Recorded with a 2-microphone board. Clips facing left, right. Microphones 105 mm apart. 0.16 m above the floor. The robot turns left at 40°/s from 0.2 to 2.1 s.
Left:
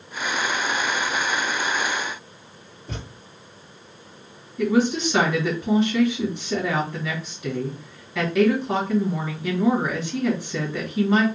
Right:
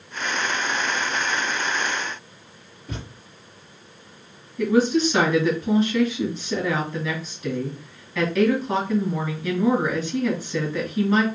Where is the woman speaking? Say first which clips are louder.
Right 1 dB; 15° left (ahead or behind), 2.5 m.